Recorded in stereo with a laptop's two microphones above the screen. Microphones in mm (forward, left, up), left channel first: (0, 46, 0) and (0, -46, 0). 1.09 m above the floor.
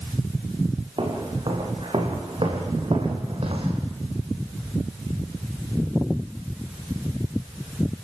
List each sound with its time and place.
1.0 s footsteps: 60° right (ahead or behind), 5 m; by 3.8 s 70° right (ahead or behind), 3.5 m